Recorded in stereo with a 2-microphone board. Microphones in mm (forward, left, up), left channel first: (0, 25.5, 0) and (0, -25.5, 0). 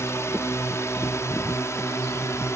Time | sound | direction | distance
0.0 | a drone | 65° left (ahead or behind) | ?